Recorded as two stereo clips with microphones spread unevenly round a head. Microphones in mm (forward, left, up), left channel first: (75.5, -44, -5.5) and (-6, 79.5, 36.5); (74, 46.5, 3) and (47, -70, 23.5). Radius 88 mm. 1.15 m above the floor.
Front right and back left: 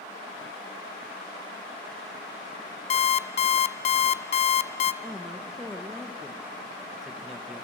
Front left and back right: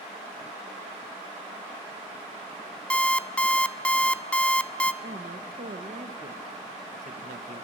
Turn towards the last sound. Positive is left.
turn(degrees=-140)